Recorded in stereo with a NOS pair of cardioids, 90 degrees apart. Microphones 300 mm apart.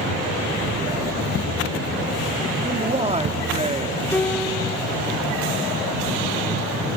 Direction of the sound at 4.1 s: 5° left.